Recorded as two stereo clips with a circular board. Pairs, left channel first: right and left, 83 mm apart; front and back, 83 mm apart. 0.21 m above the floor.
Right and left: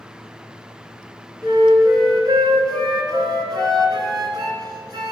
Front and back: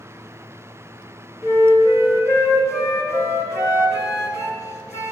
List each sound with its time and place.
1.4 s a flute: 50° left, 2.5 m